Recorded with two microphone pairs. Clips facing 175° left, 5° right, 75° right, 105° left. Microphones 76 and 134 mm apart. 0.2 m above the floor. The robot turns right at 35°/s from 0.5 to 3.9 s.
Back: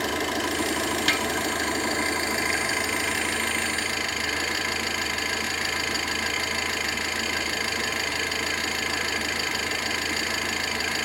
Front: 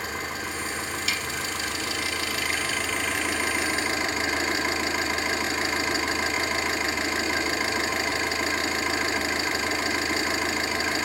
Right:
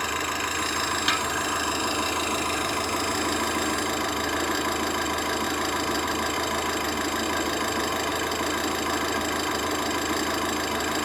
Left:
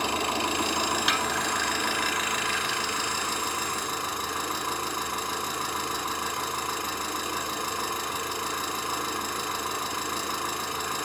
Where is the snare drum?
165° right, 1.0 m; by 1.2 s 160° right, 1.0 m.